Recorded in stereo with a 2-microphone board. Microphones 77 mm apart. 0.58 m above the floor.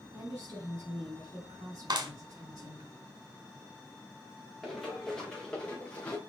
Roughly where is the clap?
Right.